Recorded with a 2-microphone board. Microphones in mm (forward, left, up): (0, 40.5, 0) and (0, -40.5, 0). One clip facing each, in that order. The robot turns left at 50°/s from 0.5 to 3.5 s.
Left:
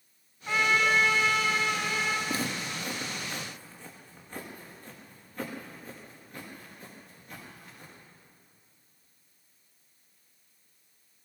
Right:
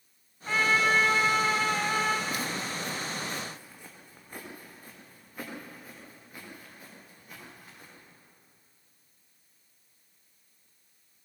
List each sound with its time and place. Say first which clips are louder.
0.5 s a trumpet: even; 15° left, 2 m; by 2.2 s 70° right, 2 m
2.3 s footsteps: even; 30° left (ahead or behind), 3 m; by 7.9 s 10° right (ahead or behind), 11 m